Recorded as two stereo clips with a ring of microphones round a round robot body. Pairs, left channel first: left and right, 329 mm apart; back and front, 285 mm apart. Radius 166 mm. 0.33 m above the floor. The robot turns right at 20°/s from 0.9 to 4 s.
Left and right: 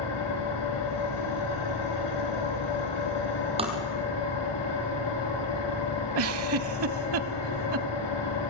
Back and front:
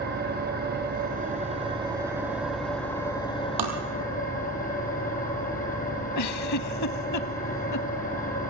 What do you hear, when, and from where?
0.0 s an engine running: 55° left, 5 m; by 8.5 s 120° left, 5 m
3.6 s tapping: 15° right, 3.5 m
6.2 s a giggle: 140° right, 0.7 m